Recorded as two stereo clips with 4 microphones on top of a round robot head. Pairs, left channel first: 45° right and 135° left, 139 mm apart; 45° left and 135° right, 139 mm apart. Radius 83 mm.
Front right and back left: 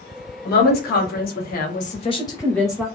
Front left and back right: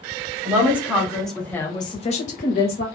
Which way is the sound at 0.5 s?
55° right.